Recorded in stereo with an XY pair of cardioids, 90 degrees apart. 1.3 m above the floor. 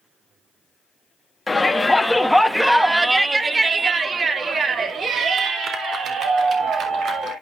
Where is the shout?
25° left, 1.8 m; by 7.3 s 80° right, 3.5 m.